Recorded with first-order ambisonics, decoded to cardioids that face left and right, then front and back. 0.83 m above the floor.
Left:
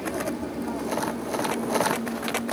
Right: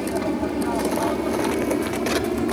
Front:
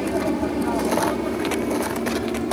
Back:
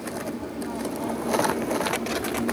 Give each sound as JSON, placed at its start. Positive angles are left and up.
{"t": 0.0, "sound": "an aircraft", "azimuth_deg": -30}